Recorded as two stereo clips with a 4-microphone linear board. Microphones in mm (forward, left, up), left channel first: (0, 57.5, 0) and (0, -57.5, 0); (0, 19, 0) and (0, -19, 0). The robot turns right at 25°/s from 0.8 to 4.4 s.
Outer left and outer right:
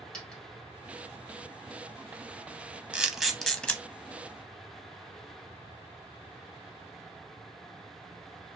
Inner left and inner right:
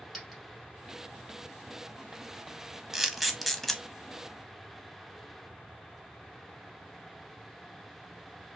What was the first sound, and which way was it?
A dropped coin, 10° left (ahead or behind).